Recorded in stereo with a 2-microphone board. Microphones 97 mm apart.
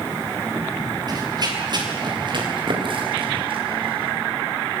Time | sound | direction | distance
1.1 | running footsteps | 40° right (ahead or behind) | 6 m